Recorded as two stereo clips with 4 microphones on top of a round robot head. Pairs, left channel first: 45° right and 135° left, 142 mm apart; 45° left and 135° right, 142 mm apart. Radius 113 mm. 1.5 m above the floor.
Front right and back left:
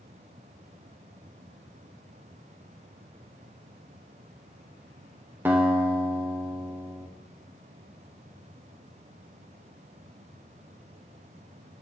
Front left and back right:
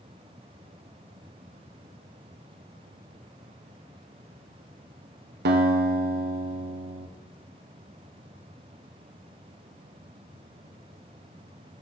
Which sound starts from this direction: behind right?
A guitar, at 5.5 s.